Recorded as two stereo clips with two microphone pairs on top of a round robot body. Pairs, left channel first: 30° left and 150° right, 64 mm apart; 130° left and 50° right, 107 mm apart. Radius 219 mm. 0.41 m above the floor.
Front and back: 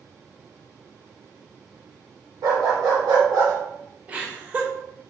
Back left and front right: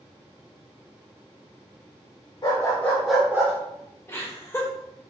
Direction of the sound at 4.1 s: 155° left.